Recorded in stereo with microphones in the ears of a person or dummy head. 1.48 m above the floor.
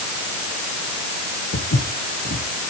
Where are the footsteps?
50° left (ahead or behind), 2.5 m.